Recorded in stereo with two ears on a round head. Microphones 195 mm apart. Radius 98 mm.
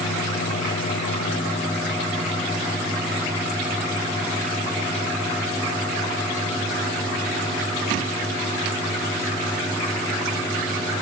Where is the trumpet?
I don't hear a trumpet.